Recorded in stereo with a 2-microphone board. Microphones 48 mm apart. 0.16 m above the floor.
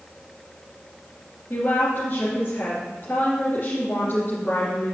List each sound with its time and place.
1.5 s a woman speaking: 50° left (ahead or behind), 3 m